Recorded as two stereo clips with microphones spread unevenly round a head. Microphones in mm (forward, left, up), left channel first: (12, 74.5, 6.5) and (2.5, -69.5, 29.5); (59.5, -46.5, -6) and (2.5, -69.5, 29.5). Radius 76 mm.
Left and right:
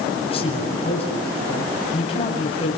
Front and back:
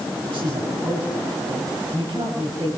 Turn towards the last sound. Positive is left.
turn(degrees=145)